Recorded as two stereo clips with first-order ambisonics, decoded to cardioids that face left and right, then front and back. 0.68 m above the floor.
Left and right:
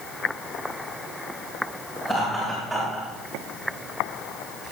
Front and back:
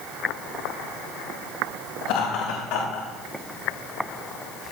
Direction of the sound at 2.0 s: 10° left.